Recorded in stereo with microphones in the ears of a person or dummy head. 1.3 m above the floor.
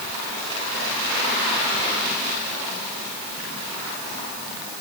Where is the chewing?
No chewing in this recording.